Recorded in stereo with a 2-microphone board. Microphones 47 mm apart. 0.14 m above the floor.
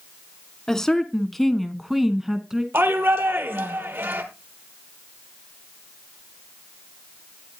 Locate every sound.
0.7 s a woman speaking: 10° left (ahead or behind), 1.4 m; by 2.6 s 10° right (ahead or behind), 1.3 m
2.7 s a shout: 55° right (ahead or behind), 3 m